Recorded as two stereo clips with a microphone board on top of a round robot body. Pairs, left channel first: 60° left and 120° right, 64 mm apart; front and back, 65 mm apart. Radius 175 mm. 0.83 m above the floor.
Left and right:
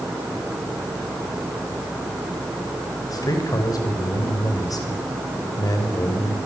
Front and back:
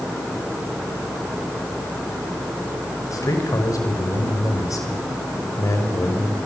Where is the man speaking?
35° left, 5.5 m.